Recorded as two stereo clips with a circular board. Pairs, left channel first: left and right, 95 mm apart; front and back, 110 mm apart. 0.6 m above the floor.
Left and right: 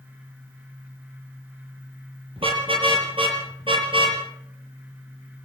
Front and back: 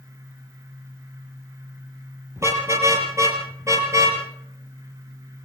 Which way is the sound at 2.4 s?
115° right.